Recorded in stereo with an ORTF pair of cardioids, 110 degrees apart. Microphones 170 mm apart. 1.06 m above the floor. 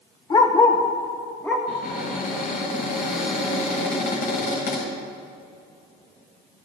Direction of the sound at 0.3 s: 30° left.